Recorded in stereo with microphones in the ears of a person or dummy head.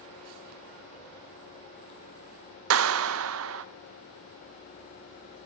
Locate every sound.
2.7 s a clap: 85° right, 0.6 m